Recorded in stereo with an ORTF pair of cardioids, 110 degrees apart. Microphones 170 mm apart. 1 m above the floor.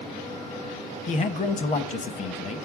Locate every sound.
1.1 s a man speaking: 45° left, 0.9 m